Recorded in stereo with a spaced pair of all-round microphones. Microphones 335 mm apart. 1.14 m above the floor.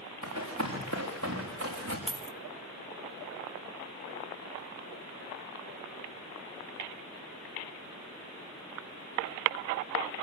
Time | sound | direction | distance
0.2 | running footsteps | 55° right (ahead or behind) | 7.5 m
2.1 | a dropped coin | 15° right (ahead or behind) | 1.1 m